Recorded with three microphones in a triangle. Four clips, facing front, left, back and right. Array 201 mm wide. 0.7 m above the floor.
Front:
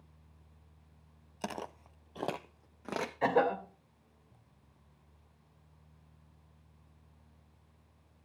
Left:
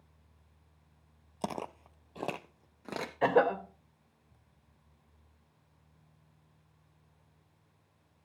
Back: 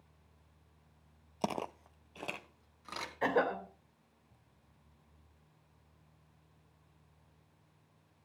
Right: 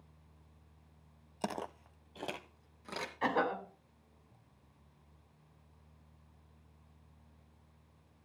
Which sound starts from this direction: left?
A cough, at 3.2 s.